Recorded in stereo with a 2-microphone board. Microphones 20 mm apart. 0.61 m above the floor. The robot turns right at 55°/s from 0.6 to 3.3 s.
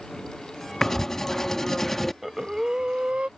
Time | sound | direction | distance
0.8 | writing | 20° left (ahead or behind) | ?
2.2 | breathing | 160° right | ?